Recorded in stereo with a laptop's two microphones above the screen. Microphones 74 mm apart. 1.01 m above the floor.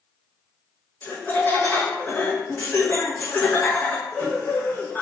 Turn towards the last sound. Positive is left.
turn(degrees=25)  # may be behind; listen again after turning